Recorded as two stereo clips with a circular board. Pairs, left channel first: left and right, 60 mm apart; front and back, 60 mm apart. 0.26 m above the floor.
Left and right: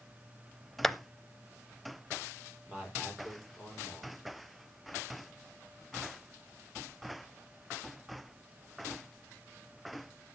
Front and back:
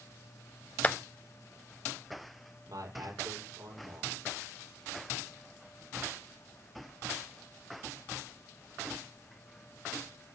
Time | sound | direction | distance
0.8 | a clap | 10° left | 0.8 m
2.7 | a man speaking | 165° right | 7 m